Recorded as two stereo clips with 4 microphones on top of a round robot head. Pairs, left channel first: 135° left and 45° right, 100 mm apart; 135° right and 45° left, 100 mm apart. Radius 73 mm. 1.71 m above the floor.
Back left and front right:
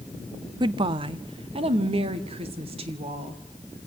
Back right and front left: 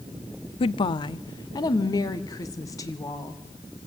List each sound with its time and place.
0.6 s a woman speaking: 95° right, 0.5 m; by 3.4 s 75° right, 2.5 m